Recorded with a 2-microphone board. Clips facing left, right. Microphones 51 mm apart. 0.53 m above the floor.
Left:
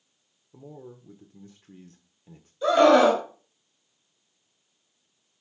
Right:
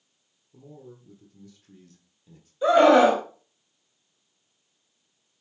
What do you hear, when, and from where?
0.5 s a man speaking: 35° left (ahead or behind), 1.3 m
2.6 s a scream: 20° right (ahead or behind), 3.5 m